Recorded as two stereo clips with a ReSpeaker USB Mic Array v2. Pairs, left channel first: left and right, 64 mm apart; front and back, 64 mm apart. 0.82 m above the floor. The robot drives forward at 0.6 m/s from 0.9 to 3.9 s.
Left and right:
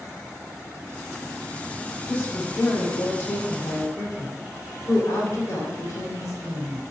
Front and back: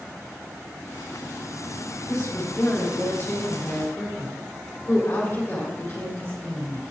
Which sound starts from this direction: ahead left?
A woman speaking, at 2.1 s.